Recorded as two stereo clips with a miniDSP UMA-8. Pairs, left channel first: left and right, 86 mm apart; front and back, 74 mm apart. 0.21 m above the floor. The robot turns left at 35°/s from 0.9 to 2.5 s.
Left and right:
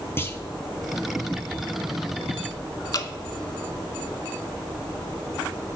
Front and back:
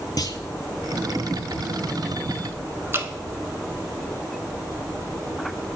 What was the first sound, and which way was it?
A clunk, 30° left.